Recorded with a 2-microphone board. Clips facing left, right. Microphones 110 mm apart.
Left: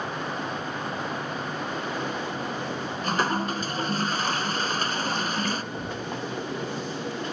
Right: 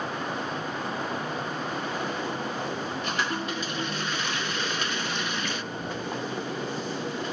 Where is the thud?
25° left (ahead or behind), 5 m.